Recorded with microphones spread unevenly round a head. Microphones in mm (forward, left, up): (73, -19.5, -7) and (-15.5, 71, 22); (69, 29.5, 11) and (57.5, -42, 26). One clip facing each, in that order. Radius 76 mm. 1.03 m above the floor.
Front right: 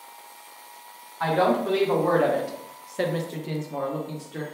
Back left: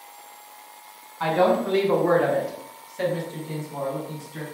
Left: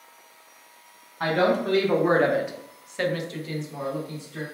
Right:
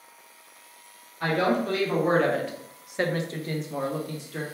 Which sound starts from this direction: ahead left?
A woman speaking, at 1.2 s.